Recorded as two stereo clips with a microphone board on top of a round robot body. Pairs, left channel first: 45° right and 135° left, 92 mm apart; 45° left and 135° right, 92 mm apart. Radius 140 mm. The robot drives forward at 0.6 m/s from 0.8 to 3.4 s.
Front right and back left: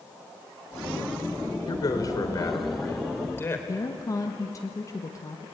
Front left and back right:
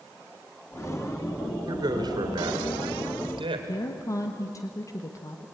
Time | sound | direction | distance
1.7 | a man speaking | 90° right | 3 m
3.7 | a woman speaking | straight ahead | 1.6 m